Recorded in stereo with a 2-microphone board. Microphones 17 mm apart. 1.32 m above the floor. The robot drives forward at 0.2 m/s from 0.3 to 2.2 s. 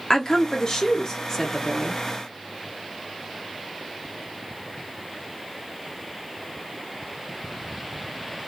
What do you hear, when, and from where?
0.1 s a woman speaking: 40° left (ahead or behind), 0.7 m; by 2.0 s 30° left (ahead or behind), 0.9 m